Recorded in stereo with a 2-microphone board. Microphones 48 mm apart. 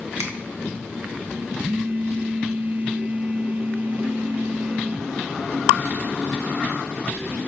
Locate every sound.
0.2 s a finger snap: 80° right, 1.6 m
1.6 s a phone buzzing: 45° right (ahead or behind), 0.6 m